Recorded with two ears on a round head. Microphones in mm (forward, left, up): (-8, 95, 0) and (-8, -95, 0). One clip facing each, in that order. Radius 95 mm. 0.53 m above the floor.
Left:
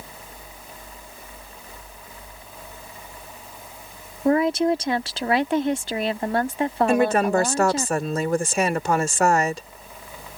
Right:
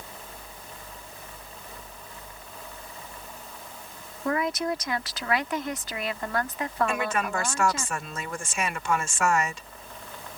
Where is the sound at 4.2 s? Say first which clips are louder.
Left 8 dB; 25° left (ahead or behind).